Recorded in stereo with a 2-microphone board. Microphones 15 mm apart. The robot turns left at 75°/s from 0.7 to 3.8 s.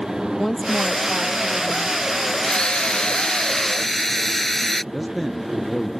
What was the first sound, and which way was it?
A woman speaking, 170° left.